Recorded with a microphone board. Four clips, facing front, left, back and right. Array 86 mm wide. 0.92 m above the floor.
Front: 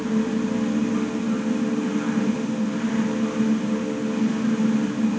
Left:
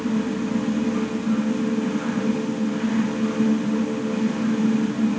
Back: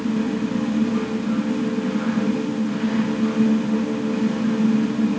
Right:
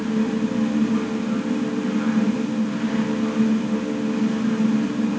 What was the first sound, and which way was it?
Only background noise.